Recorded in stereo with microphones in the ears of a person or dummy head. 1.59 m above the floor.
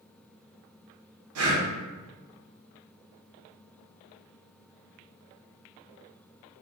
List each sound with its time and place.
1.4 s breathing: 85° right, 0.7 m